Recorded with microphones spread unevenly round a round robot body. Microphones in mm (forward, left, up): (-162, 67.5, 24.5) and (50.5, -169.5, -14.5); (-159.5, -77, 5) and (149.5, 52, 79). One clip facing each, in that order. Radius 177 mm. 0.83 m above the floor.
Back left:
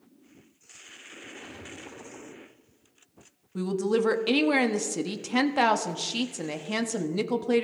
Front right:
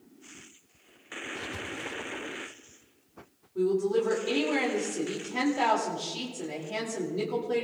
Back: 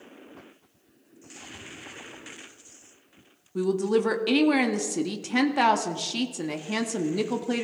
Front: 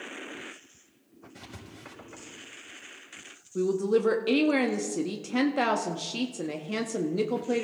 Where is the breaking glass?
No breaking glass in this recording.